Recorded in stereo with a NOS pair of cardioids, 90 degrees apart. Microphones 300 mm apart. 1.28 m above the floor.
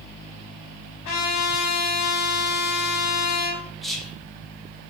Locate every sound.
1.1 s a trumpet: 60° left, 1.1 m
3.8 s whispering: straight ahead, 0.8 m